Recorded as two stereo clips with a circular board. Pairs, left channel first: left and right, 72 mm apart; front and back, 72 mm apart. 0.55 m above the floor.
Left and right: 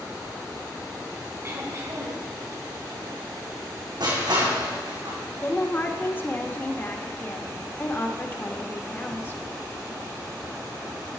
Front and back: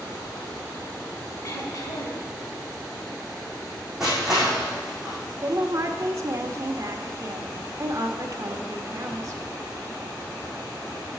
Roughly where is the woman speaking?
Behind left.